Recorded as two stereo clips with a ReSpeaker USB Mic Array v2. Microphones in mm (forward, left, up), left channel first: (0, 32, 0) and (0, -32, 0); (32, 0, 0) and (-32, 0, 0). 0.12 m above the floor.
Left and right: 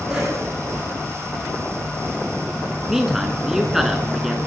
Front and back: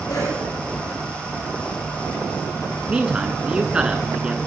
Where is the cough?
10° right, 7.5 m.